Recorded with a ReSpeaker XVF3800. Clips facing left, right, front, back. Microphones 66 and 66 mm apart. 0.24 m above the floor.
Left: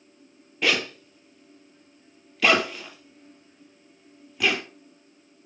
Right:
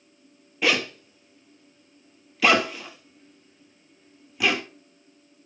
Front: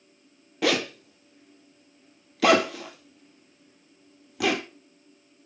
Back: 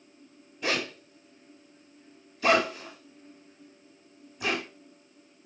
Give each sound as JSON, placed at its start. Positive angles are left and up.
{"t": 0.6, "sound": "a zipper", "azimuth_deg": -5, "distance_m": 1.3}